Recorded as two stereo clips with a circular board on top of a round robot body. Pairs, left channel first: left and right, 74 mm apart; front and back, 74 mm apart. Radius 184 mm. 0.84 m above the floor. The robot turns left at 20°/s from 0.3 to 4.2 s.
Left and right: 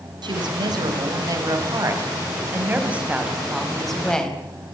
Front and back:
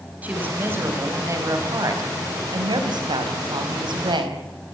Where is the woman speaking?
110° right, 5 m; by 4.4 s 170° left, 5 m.